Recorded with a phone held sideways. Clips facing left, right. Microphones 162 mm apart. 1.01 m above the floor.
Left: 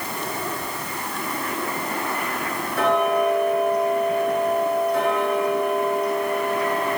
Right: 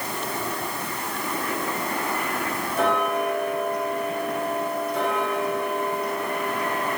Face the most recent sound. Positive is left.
turn(degrees=65)  # may be behind; listen again after turning